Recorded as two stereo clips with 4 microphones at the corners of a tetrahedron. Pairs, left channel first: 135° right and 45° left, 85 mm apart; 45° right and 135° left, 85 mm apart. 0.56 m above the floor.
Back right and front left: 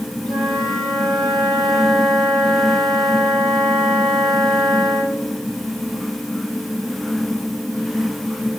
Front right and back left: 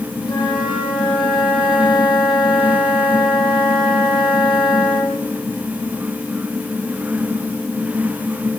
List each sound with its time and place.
0.3 s a flute: 50° right, 9.5 m